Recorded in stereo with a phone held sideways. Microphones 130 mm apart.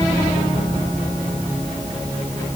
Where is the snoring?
I don't hear snoring.